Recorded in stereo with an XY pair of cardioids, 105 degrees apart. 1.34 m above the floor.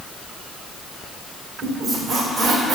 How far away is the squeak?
About 2 m.